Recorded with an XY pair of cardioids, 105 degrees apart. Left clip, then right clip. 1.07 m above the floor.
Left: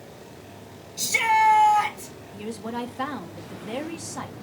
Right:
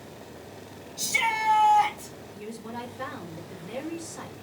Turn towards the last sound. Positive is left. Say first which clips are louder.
# left 6 dB
turn(degrees=65)